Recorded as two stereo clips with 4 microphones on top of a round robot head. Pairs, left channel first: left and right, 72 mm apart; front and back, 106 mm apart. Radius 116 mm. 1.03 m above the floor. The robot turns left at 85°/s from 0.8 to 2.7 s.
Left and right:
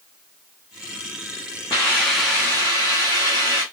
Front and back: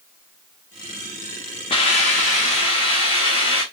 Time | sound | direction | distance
1.7 | a hiss | 40° left | 0.7 m